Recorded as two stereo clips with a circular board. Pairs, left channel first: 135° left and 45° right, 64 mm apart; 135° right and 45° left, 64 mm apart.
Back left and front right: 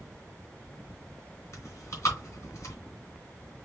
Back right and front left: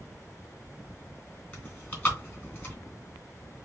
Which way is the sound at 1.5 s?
170° left.